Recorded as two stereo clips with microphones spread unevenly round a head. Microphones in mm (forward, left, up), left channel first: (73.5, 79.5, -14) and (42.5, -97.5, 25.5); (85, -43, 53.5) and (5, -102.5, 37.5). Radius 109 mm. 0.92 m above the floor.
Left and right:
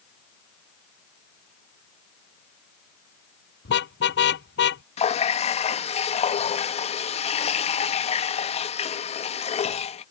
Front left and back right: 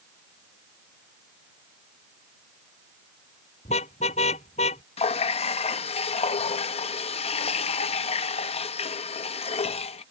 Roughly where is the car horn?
Left.